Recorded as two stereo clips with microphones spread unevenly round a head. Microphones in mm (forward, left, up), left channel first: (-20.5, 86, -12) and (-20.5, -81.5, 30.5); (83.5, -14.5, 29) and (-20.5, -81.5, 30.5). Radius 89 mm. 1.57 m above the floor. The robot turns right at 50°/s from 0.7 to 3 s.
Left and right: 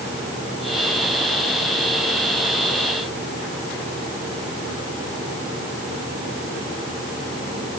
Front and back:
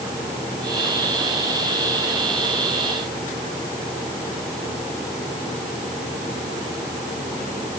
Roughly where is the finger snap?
No finger snap in this recording.